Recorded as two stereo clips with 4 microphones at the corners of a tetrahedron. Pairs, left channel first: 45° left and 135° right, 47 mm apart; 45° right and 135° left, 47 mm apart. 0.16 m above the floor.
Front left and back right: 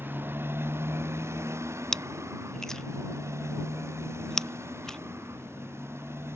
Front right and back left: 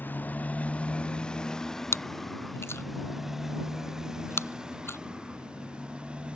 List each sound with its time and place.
0.0 s a motorcycle: 90° right; by 6.3 s 160° right
1.9 s chewing: 35° right